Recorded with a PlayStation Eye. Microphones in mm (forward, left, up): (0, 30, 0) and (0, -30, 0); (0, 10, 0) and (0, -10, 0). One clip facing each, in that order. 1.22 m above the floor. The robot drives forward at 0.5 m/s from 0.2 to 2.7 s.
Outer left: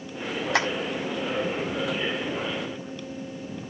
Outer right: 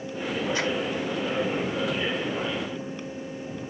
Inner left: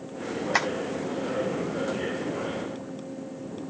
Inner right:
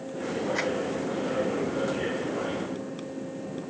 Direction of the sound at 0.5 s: 85° left.